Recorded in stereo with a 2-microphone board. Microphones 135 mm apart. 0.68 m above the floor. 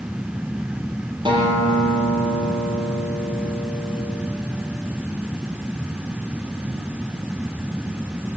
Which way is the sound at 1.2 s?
35° right (ahead or behind).